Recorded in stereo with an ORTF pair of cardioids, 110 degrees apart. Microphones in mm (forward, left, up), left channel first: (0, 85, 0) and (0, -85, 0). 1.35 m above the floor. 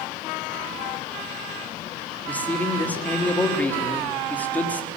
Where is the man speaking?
10° left, 3.5 m.